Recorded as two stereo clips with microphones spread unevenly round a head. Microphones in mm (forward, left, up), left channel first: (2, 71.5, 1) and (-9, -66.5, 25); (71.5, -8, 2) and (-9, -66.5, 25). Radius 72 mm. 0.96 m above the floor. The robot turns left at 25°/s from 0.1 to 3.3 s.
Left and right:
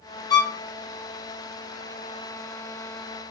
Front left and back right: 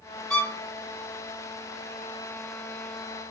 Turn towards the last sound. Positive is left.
turn(degrees=25)